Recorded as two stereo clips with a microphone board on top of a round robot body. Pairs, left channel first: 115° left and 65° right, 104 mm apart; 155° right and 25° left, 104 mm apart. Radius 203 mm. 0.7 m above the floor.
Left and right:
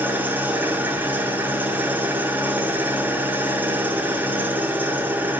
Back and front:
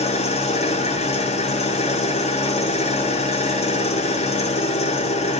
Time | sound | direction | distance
0.0 | an engine running | 140° right | 1.0 m